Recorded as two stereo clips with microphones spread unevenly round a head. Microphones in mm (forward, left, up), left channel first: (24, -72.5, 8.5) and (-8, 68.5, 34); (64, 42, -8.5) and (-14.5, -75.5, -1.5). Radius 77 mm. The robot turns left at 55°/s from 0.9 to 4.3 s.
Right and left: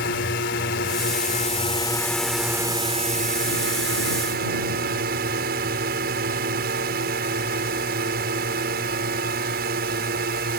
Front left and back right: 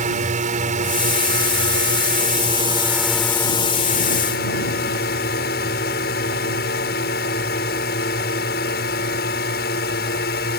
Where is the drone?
90° right; by 10.6 s 80° left.